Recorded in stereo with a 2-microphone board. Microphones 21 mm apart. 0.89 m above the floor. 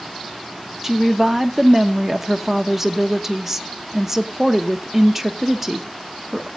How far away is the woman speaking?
About 0.9 m.